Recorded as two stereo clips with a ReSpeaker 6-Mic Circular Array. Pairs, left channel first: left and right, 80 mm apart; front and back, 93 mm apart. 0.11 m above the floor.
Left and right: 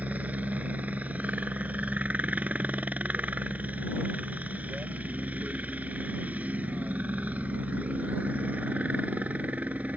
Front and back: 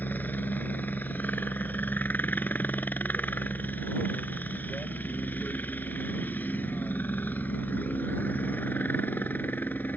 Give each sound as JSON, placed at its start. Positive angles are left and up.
{"t": 0.0, "sound": "a helicopter", "azimuth_deg": -45}